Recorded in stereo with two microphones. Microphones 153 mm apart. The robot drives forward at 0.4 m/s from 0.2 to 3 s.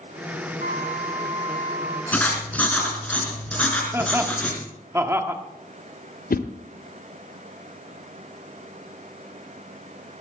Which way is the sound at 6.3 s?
70° left (ahead or behind).